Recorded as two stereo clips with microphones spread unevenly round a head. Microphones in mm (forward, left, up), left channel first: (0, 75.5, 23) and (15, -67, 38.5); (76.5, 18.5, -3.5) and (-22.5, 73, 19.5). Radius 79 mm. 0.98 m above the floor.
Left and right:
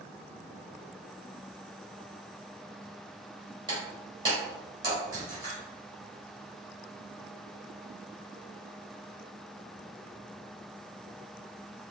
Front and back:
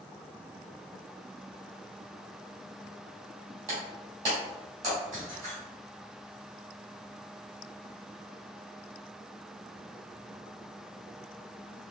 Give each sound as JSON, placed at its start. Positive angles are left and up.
{"t": 3.7, "sound": "breaking glass", "azimuth_deg": -145, "distance_m": 1.8}